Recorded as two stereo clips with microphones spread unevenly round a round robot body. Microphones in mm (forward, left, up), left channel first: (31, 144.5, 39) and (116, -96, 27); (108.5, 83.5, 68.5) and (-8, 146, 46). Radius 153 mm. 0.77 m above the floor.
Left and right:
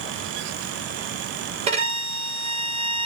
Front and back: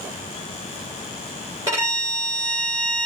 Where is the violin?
140° right, 2.5 m.